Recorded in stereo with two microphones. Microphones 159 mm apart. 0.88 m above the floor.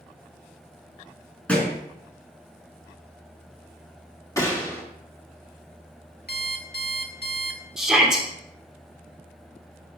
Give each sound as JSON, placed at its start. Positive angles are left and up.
{"t": 1.5, "sound": "a thud", "side_deg": 10, "distance_m": 3.0}
{"t": 4.4, "sound": "a gunshot", "side_deg": 20, "distance_m": 1.8}
{"t": 6.3, "sound": "an alarm clock", "side_deg": 70, "distance_m": 1.3}
{"t": 7.8, "sound": "a shout", "side_deg": -5, "distance_m": 3.0}